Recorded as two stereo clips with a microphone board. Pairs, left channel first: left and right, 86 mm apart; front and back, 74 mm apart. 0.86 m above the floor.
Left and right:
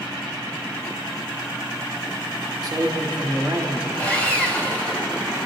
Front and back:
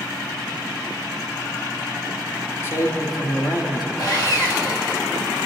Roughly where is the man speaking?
Ahead right.